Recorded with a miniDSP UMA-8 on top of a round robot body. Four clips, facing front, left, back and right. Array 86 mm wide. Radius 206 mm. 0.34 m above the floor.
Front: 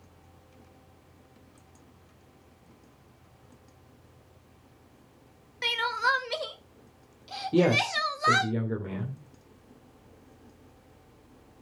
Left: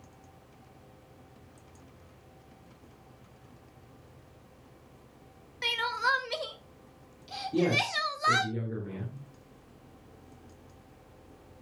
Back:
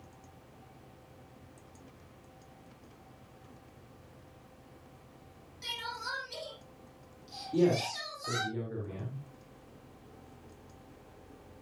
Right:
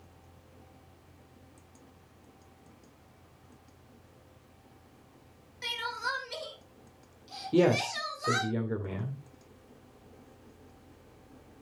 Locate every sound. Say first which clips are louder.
5.6 s crying: left 6 dB, front 13 dB; 30° left, 2 m
7.5 s a man speaking: right 3 dB, front 4 dB; 40° right, 3 m